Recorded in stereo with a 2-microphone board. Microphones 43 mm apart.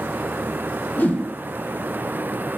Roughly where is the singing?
I don't hear singing.